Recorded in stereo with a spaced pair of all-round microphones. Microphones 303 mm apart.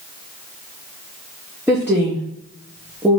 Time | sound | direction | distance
1.7 | a woman speaking | 5° right (ahead or behind) | 1.4 m